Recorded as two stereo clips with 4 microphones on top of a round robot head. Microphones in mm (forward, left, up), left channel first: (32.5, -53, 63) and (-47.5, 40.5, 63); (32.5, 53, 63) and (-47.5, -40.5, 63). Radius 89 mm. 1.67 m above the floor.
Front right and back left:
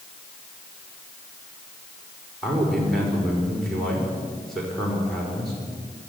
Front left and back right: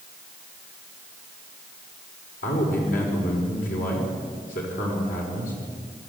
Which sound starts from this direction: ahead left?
A man speaking, at 2.4 s.